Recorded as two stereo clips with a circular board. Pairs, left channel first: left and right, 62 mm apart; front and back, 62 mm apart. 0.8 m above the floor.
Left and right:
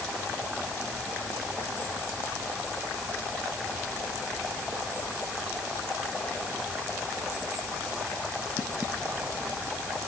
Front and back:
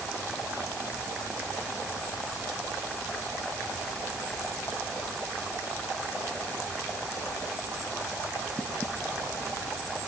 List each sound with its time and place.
Only background noise.